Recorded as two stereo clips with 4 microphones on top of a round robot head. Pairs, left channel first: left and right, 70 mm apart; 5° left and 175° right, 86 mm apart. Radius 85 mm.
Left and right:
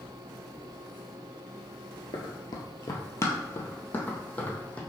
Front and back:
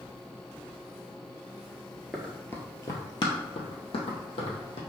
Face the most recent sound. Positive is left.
turn(degrees=15)